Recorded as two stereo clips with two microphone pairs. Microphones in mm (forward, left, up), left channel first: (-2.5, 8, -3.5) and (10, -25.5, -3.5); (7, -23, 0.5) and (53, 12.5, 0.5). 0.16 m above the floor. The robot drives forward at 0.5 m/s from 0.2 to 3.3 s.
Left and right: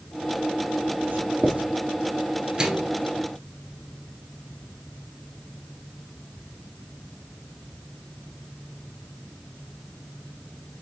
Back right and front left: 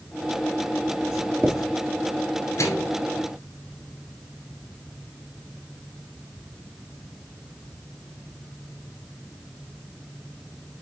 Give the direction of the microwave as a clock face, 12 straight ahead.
5 o'clock.